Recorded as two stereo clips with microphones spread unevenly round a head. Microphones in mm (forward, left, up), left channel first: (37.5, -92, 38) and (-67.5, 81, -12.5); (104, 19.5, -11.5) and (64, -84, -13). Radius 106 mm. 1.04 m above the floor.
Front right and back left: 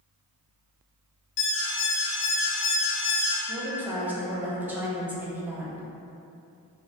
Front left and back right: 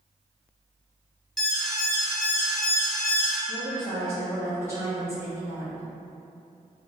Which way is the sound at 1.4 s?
15° right.